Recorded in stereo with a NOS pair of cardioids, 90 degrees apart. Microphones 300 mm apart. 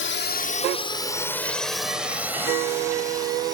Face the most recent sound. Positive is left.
turn(degrees=-15)